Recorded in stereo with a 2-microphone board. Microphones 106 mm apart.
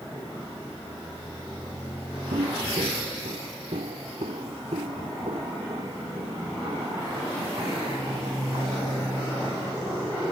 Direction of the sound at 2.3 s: 85° right.